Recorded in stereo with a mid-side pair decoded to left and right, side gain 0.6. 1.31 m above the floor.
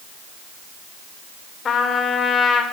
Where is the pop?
No pop in this recording.